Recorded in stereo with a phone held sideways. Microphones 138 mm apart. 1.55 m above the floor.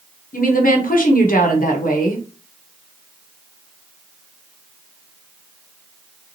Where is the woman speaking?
85° left, 1.3 m.